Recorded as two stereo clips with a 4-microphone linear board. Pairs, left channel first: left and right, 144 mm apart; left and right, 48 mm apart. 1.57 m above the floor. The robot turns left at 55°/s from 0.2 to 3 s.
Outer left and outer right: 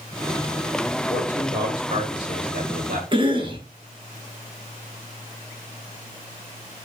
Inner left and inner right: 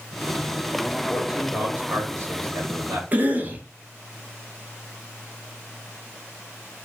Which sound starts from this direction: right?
A cough, at 3.1 s.